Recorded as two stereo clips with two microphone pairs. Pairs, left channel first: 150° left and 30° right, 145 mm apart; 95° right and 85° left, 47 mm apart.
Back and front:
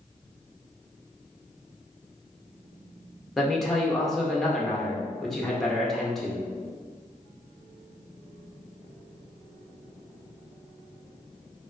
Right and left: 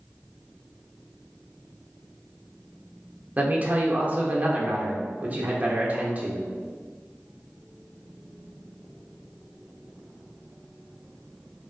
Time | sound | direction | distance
3.4 | a man speaking | 60° left | 0.7 m